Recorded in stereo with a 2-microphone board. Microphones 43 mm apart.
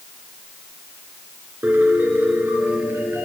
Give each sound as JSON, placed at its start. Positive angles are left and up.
{"t": 1.6, "sound": "a piano", "side_deg": -50, "distance_m": 3.0}